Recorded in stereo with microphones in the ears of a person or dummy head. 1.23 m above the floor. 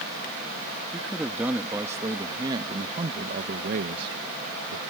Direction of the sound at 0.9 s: 5° right (ahead or behind).